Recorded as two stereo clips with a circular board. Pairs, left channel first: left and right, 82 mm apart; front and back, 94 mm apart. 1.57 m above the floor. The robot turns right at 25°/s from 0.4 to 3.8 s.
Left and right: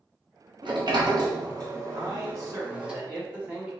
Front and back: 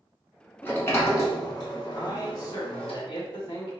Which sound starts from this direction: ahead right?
A man speaking, at 1.9 s.